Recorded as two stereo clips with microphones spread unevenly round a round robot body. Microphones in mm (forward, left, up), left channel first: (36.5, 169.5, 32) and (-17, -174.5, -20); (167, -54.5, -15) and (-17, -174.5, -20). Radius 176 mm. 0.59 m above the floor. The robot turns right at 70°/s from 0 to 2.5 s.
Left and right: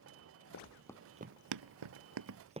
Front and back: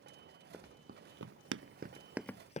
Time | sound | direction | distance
0.5 | running footsteps | 125° left | ?